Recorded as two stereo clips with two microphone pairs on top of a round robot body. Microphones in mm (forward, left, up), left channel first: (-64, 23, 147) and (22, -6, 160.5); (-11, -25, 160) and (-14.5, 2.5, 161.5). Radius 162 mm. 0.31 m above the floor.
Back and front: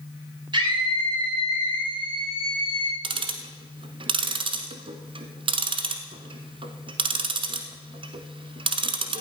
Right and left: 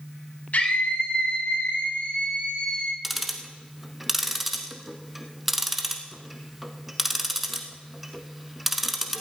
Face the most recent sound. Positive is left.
turn(degrees=15)